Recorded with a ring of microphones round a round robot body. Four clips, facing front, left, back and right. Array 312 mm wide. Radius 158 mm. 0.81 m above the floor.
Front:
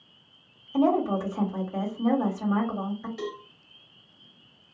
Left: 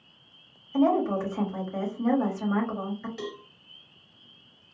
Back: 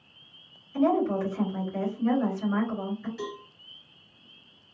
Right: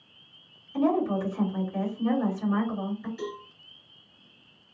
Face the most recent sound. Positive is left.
turn(degrees=60)